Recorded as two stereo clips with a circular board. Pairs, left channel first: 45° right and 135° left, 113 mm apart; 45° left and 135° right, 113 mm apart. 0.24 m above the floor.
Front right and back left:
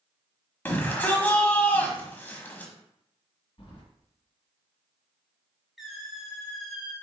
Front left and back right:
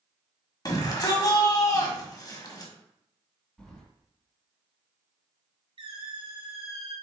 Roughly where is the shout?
Ahead.